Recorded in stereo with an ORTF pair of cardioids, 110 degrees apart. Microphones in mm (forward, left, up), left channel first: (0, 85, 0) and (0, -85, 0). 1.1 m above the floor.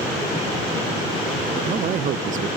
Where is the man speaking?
50° right, 0.6 m.